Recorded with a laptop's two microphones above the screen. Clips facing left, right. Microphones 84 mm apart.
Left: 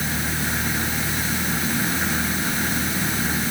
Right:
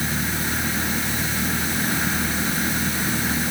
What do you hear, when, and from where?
Only background noise.